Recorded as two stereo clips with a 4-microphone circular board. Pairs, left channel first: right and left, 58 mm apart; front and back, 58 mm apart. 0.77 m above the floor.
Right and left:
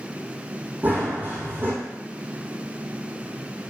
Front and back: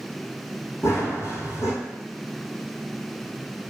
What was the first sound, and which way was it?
Running footsteps, 35° left.